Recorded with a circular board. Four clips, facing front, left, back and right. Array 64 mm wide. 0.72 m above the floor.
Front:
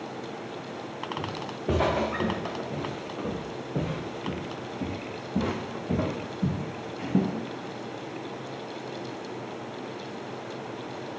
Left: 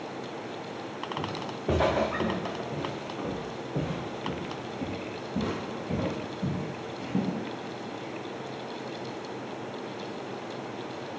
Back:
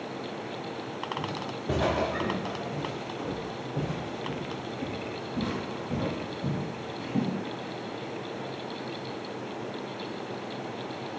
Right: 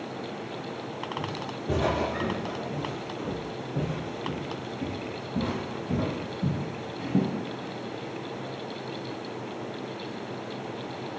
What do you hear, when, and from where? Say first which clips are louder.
1.2 s footsteps: even, even; 50° left, 3.5 m; by 7.3 s 15° right, 2.5 m